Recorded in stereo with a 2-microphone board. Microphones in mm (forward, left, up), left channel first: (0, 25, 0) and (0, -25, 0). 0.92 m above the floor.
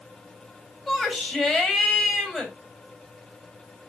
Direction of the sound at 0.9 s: 5° right (ahead or behind).